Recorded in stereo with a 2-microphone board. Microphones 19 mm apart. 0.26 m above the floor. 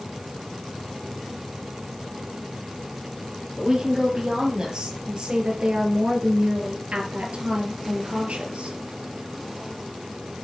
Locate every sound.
3.6 s a woman speaking: 30° right (ahead or behind), 5.5 m; by 8.8 s 75° right (ahead or behind), 5 m